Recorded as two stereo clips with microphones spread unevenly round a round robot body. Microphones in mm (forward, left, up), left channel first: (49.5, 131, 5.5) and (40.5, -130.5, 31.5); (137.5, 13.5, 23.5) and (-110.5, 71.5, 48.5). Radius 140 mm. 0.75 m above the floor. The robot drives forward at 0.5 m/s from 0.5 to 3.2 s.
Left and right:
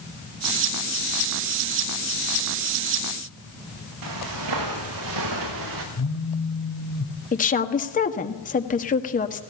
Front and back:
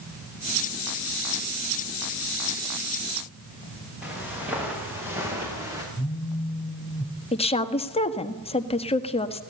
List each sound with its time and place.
4.0 s footsteps: 110° right, 8.5 m; by 5.8 s 115° right, 6 m
6.0 s a phone buzzing: 75° left, 2 m
7.3 s a woman speaking: 45° left, 1.5 m